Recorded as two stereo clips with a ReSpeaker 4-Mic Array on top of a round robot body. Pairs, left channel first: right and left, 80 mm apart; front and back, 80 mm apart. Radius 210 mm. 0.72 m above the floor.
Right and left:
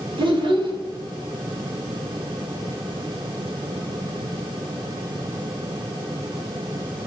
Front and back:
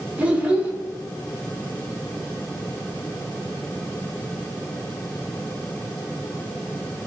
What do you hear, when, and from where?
0.2 s a child speaking: 105° left, 0.8 m